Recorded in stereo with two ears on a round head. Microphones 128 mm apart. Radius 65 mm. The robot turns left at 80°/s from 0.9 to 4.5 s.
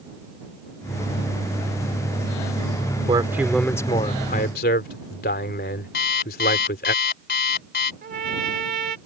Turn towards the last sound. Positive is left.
turn(degrees=-70)  # may be behind; listen again after turning